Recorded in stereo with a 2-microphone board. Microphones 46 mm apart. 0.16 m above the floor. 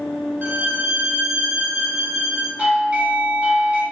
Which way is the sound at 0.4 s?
45° right (ahead or behind).